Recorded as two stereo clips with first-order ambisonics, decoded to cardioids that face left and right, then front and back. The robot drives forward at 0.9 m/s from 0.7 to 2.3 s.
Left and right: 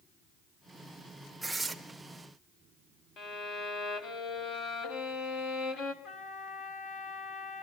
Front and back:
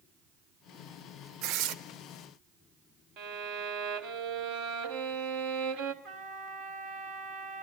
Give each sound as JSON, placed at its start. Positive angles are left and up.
{"t": 1.4, "sound": "tearing paper", "azimuth_deg": -175, "distance_m": 0.7}
{"t": 3.2, "sound": "a violin", "azimuth_deg": 145, "distance_m": 1.2}
{"t": 6.0, "sound": "a trumpet", "azimuth_deg": 135, "distance_m": 2.0}